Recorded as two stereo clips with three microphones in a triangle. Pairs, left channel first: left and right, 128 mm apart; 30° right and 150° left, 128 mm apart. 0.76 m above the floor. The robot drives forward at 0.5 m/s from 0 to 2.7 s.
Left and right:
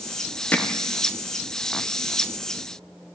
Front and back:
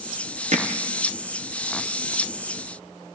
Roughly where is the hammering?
Behind.